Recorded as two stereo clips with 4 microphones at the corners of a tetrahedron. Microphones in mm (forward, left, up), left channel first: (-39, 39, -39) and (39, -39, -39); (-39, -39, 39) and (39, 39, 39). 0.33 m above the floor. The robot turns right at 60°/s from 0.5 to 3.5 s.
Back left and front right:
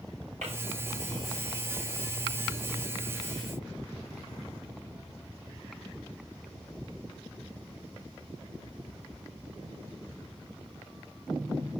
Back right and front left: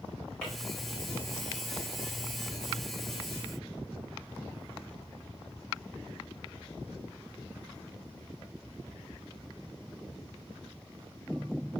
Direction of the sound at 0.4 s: 55° right.